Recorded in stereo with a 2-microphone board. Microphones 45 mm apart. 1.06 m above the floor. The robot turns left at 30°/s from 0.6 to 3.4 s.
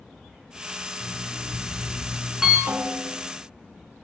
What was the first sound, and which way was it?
An alarm clock, 30° left.